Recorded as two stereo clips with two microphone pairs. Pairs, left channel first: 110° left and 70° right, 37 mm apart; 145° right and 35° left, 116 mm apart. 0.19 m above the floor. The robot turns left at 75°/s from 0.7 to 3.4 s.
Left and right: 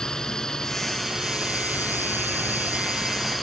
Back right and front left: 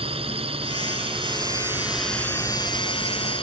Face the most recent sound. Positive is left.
turn(degrees=-160)